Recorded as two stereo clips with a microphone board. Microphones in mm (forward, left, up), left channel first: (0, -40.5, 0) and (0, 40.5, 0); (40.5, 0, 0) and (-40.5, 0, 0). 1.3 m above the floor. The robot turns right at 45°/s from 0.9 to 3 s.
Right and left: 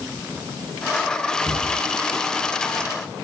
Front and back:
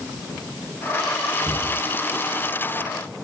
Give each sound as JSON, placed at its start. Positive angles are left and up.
{"t": 1.4, "sound": "a cupboard door", "azimuth_deg": 175, "distance_m": 1.2}